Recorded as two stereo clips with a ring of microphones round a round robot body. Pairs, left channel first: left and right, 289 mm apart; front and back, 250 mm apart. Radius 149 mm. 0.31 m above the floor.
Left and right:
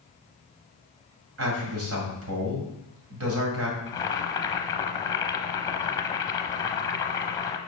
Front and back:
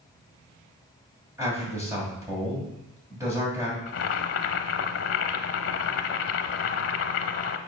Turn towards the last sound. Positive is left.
turn(degrees=15)